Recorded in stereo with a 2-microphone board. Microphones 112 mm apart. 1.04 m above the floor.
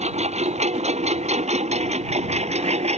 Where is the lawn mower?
80° right; by 3.0 s 75° right (ahead or behind).